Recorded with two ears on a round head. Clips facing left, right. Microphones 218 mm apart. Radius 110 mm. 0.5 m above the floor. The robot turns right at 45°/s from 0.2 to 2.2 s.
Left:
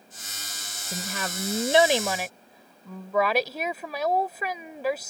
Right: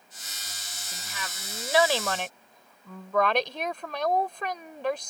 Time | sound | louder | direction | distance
0.9 | a woman speaking | left 10 dB | 115° left | ?